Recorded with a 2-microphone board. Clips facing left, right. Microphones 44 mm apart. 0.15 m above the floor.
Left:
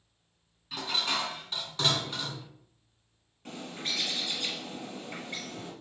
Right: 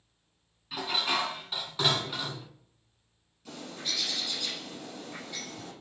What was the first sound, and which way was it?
Dishes clattering, 10° right (ahead or behind).